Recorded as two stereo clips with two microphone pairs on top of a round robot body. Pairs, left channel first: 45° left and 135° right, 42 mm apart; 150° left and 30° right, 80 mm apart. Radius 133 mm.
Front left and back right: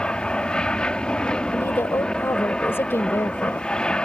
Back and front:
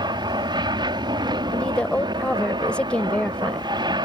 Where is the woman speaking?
75° left.